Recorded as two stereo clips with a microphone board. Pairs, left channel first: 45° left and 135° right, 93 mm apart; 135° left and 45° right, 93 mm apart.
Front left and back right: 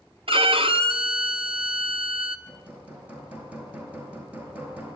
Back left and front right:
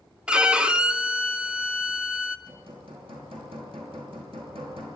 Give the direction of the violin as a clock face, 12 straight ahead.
4 o'clock.